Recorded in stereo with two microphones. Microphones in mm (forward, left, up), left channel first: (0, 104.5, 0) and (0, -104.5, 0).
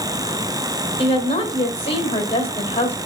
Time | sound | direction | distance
1.0 | a woman speaking | 30° left (ahead or behind) | 2 m